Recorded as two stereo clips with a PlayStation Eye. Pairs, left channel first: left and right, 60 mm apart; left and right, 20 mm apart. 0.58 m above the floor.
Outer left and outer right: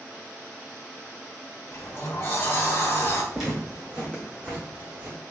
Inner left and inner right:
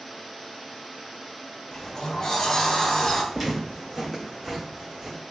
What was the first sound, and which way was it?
A sliding door, 40° left (ahead or behind).